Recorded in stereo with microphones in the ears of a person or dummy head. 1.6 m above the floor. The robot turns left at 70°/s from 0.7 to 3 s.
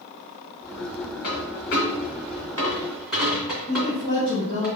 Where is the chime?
No chime in this recording.